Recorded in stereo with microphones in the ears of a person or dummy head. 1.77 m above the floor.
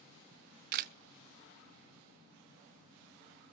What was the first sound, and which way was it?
A camera shutter, 45° right (ahead or behind).